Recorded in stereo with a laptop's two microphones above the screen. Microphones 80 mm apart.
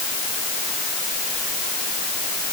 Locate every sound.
Only background noise.